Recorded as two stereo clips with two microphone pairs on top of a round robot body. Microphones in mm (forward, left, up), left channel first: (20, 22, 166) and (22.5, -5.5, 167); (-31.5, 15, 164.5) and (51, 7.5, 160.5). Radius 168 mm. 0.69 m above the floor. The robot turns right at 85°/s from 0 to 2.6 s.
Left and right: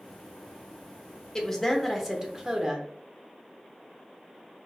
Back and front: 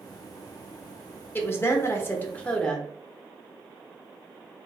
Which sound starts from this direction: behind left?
A woman speaking, at 1.4 s.